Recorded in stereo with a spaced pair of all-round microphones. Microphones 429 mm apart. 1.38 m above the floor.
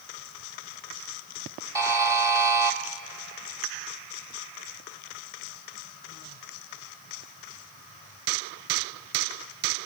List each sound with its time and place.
1.8 s a buzzer: 5° right (ahead or behind), 1.2 m